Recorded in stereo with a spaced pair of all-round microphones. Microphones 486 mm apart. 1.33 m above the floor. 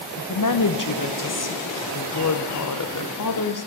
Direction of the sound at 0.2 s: 40° left (ahead or behind).